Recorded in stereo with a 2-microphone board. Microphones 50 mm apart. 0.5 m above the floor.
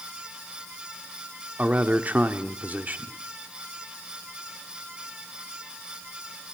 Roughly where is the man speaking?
Right.